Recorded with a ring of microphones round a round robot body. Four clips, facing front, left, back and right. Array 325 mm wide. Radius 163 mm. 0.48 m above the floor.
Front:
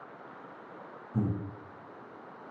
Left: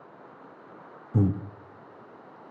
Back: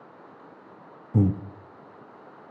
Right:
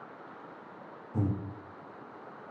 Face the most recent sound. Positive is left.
turn(degrees=150)